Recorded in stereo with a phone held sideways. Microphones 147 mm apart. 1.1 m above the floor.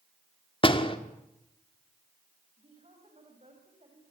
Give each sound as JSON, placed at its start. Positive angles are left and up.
{"t": 0.6, "sound": "a door slam", "side_deg": 35, "distance_m": 1.7}
{"t": 2.6, "sound": "a woman speaking", "side_deg": -45, "distance_m": 5.5}